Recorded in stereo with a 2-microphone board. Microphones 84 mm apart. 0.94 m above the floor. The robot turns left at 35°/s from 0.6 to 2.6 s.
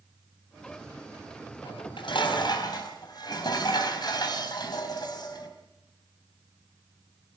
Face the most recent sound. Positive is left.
turn(degrees=55)